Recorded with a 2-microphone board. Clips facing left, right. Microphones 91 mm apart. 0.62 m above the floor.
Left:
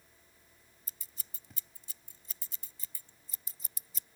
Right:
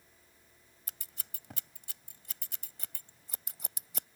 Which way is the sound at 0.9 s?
80° right.